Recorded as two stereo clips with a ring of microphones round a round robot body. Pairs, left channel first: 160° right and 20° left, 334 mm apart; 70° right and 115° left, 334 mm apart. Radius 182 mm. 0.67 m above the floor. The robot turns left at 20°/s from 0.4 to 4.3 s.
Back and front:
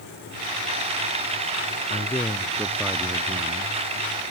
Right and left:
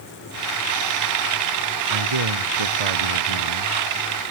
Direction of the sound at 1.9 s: 125° left.